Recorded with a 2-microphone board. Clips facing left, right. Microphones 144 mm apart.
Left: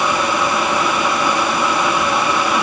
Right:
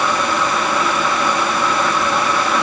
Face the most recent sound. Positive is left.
No sound to turn to.